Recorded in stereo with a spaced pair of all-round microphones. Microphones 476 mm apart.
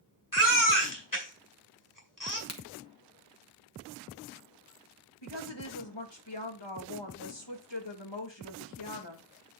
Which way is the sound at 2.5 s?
30° left (ahead or behind).